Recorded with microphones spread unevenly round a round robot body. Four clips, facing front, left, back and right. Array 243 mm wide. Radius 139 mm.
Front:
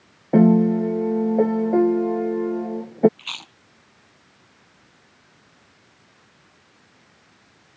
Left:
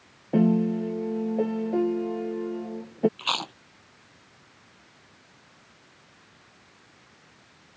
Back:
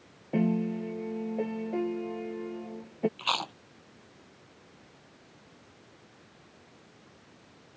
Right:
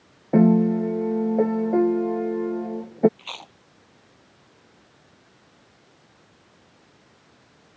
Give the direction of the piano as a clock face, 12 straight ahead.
12 o'clock.